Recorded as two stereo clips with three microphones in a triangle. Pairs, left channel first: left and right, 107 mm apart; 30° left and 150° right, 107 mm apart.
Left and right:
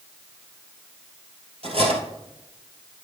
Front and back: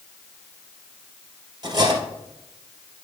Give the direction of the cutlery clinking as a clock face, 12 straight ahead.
3 o'clock.